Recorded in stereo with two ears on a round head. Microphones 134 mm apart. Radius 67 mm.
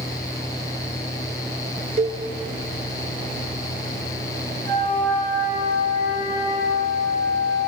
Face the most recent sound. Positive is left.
turn(degrees=-55)  # may be behind; listen again after turning